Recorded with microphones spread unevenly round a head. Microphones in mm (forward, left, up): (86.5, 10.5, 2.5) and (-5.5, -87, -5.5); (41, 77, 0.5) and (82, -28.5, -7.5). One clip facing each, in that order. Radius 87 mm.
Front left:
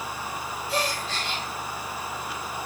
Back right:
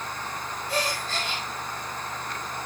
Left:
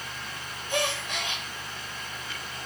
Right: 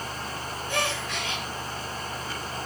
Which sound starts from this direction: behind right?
A gasp, at 0.7 s.